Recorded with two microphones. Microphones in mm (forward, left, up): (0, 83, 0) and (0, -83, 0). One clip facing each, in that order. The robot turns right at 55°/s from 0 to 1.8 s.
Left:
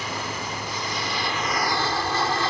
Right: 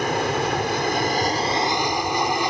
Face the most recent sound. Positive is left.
turn(degrees=-15)  # may be behind; listen again after turning